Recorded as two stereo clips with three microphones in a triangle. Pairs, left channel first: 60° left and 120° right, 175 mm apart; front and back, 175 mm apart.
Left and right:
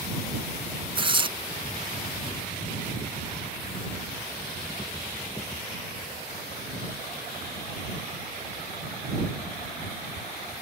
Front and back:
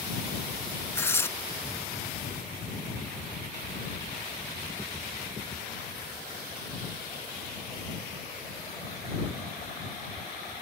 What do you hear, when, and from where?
0.9 s tearing paper: 70° right